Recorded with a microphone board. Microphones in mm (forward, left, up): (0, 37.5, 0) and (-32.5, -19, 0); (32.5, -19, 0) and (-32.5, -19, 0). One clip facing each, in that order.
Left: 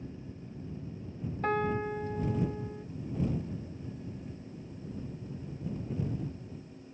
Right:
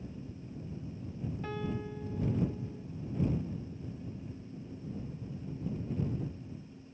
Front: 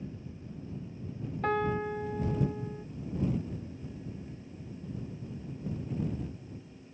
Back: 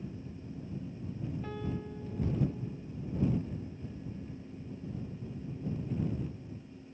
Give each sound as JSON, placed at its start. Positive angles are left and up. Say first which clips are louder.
{"t": 1.4, "sound": "a piano", "louder": "left 10 dB, front 15 dB", "azimuth_deg": 25}